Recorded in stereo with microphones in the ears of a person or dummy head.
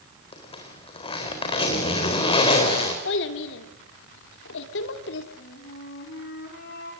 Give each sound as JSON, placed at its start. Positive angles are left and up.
{"t": 0.3, "sound": "a zipper", "side_deg": 25, "distance_m": 4.0}
{"t": 3.0, "sound": "a child speaking", "side_deg": 70, "distance_m": 2.5}
{"t": 5.4, "sound": "a flute", "side_deg": 55, "distance_m": 5.0}